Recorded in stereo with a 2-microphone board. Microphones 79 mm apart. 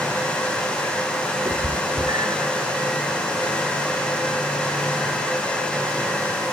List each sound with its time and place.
1.4 s a cat meowing: 45° right (ahead or behind), 4 m; by 2.5 s 55° right (ahead or behind), 3.5 m